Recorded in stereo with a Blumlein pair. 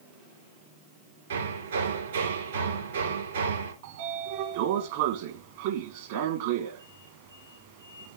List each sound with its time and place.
1.3 s hammering: 65° right, 4 m
3.8 s a sliding door: 55° right, 1.8 m